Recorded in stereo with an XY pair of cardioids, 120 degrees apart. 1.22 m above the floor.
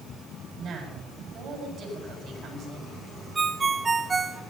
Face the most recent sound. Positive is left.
turn(degrees=-25)